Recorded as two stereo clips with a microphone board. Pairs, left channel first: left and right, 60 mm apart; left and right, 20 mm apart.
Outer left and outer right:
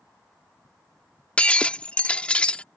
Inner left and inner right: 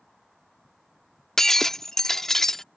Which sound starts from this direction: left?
Breaking glass, at 1.4 s.